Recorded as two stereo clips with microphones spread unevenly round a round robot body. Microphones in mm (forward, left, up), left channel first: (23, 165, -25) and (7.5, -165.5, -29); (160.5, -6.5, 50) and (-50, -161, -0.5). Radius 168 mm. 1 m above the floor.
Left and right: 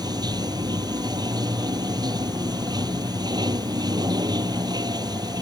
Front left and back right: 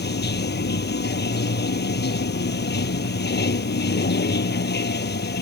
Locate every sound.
0.0 s running water: 15° right